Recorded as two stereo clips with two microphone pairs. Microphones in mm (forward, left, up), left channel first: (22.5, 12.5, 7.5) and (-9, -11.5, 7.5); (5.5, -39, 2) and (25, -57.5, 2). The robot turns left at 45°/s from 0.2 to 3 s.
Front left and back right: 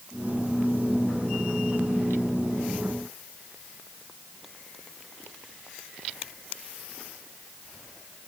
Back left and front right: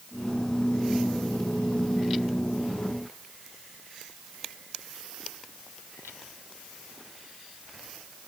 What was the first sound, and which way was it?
Only background noise.